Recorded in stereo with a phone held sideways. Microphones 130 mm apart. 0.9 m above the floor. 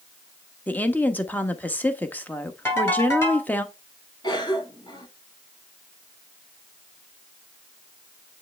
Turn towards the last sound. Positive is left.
turn(degrees=35)  # may be behind; listen again after turning